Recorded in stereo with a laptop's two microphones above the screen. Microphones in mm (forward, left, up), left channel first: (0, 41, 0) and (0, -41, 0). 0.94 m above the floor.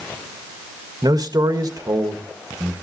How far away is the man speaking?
About 1.4 m.